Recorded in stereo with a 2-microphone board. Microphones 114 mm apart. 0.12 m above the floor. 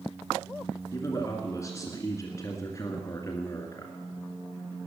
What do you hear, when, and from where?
0.9 s a man speaking: 25° left (ahead or behind), 1.9 m